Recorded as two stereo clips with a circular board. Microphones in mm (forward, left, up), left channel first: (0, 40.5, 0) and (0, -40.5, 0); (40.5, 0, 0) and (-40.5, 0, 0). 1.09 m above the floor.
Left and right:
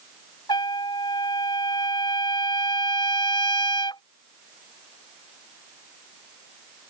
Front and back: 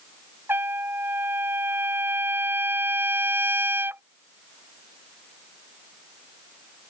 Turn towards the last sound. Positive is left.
turn(degrees=115)